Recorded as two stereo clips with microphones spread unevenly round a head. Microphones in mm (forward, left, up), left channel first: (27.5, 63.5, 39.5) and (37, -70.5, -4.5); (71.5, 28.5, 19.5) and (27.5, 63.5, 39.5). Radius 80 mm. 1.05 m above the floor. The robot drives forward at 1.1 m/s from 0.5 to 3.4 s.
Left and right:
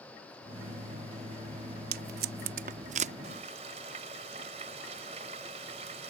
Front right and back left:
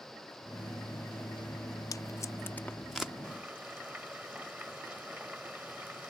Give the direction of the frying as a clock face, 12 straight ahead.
5 o'clock.